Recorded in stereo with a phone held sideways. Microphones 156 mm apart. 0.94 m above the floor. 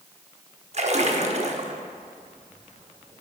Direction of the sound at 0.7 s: 50° right (ahead or behind).